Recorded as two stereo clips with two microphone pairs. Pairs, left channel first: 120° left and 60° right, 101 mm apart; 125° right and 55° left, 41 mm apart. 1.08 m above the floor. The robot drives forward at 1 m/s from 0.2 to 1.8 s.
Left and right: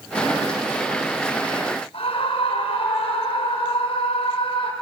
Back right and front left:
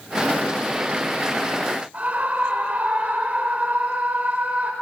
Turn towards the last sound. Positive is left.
turn(degrees=110)